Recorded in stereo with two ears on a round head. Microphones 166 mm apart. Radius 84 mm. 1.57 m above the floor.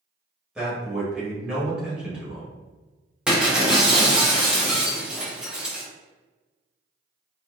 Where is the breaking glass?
5° right (ahead or behind), 0.7 m.